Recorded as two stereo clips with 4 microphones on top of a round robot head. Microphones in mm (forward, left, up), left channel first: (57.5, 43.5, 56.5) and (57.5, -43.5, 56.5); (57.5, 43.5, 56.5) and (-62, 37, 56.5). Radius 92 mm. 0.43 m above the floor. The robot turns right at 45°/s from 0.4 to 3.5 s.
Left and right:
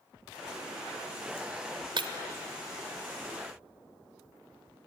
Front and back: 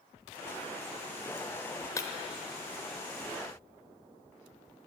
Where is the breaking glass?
65° right, 0.6 m; by 2.1 s 55° right, 0.6 m.